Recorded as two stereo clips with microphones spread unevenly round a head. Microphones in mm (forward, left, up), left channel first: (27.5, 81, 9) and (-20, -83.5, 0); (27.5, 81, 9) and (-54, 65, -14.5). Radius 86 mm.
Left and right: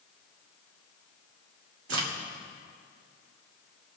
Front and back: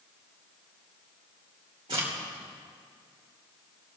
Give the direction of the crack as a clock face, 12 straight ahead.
3 o'clock.